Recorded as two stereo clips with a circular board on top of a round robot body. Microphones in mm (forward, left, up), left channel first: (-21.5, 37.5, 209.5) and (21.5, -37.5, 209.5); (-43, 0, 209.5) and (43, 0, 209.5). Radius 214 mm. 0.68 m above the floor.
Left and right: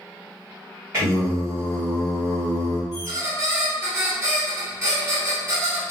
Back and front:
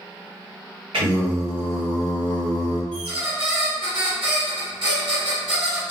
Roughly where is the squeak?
Ahead.